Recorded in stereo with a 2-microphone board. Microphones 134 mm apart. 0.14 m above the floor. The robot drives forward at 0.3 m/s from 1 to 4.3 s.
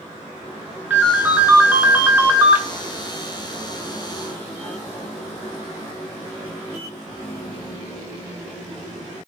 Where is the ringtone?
10° right (ahead or behind), 0.9 m; by 2.6 s 15° right (ahead or behind), 0.6 m.